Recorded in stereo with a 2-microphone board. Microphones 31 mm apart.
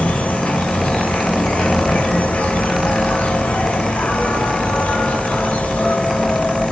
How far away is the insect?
About 1.1 m.